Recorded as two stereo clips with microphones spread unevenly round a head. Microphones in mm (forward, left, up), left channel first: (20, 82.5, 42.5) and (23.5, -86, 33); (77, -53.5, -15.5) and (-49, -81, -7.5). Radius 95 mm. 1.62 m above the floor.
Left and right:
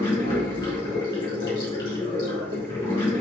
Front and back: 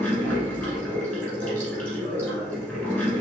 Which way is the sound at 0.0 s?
90° left.